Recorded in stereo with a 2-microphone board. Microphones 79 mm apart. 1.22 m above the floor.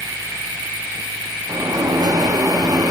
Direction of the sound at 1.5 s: 50° right (ahead or behind).